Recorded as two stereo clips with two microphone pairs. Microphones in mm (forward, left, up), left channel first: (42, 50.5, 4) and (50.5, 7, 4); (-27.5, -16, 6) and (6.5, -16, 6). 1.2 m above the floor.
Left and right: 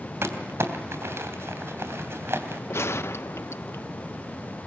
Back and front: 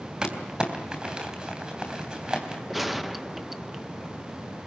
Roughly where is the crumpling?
Ahead right.